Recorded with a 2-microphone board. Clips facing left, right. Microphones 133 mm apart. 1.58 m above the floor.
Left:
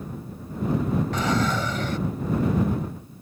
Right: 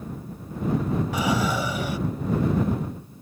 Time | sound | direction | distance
1.1 | a drawer | 10° right (ahead or behind) | ?